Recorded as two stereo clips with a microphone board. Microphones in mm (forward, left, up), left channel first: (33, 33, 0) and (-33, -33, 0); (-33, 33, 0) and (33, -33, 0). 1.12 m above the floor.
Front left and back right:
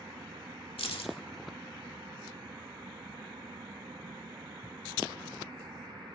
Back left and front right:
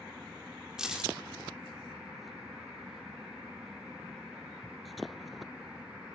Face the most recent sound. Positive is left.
turn(degrees=40)